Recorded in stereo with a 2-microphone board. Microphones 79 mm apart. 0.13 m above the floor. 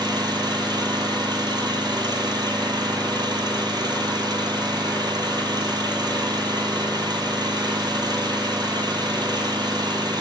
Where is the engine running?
70° right (ahead or behind), 0.9 m.